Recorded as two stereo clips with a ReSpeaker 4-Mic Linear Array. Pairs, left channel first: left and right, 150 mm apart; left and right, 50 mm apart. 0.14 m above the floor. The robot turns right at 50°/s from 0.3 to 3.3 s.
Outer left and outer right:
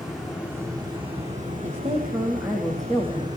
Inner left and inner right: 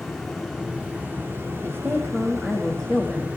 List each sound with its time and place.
0.0 s running water: 175° right, 9.5 m; by 3.4 s 25° right, 9.5 m
1.6 s a woman speaking: 55° right, 6 m; by 3.3 s 30° left, 6 m